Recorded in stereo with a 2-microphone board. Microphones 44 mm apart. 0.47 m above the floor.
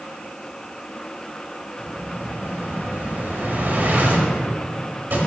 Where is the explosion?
50° right (ahead or behind), 1.9 m.